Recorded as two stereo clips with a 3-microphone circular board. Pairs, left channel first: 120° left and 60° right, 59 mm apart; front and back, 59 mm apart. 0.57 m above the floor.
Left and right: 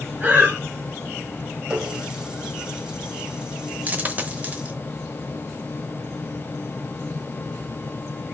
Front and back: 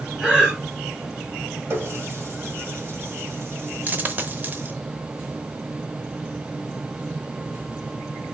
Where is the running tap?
135° right, 1.5 m.